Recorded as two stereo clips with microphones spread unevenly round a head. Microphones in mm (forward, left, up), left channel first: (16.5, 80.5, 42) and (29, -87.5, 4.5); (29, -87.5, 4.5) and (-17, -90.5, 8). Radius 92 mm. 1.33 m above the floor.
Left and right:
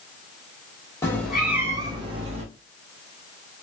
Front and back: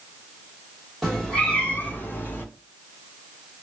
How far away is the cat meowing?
About 0.7 m.